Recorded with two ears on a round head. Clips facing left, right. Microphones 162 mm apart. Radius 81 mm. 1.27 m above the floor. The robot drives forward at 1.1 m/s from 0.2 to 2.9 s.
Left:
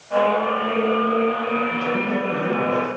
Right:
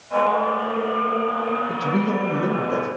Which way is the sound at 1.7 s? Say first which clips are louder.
Right 1 dB; 75° right (ahead or behind).